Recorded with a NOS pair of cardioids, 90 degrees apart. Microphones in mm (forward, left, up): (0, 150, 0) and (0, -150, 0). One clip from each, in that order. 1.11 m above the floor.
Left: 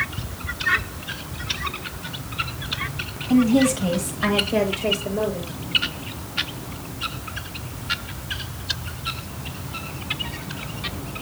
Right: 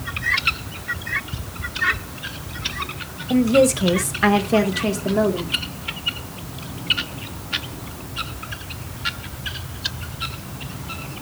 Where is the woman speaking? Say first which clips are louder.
Right 3 dB; 15° right, 0.9 m; by 5.5 s 60° right, 1.7 m.